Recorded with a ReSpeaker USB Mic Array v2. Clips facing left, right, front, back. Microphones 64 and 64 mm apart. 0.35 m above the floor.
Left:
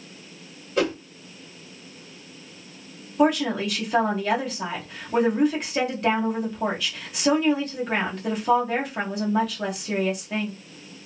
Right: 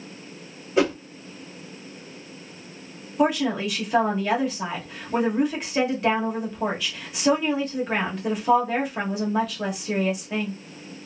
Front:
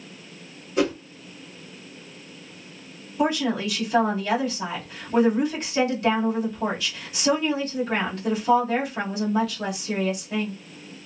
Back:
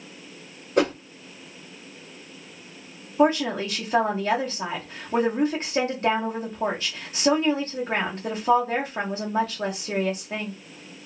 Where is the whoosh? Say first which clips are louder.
Right 2 dB, back 1 dB; 165° right, 1.5 m.